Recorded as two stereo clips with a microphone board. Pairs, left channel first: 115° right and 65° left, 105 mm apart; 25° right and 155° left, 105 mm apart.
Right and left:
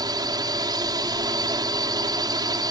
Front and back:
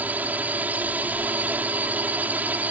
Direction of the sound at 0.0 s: 90° left.